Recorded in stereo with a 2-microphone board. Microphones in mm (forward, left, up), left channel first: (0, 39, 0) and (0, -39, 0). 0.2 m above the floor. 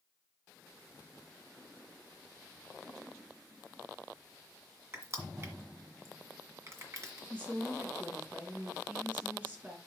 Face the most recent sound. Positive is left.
turn(degrees=-20)  # may be behind; listen again after turning